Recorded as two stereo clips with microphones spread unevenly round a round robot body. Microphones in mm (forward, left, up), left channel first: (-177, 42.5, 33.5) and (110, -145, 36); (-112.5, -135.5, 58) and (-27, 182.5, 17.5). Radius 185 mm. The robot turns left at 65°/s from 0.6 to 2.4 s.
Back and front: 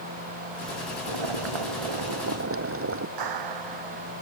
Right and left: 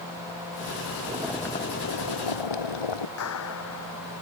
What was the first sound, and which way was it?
Boiling, straight ahead.